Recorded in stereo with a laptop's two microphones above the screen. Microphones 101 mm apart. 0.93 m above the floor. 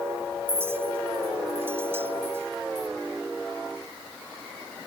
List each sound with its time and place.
0.5 s a clink: 25° right (ahead or behind)